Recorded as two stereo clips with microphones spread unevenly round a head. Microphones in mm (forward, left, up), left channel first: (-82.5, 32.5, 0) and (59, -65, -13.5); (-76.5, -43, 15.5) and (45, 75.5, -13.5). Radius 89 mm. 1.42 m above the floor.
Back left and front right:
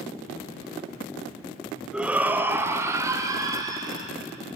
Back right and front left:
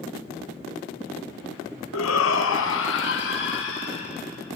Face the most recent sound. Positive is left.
turn(degrees=-105)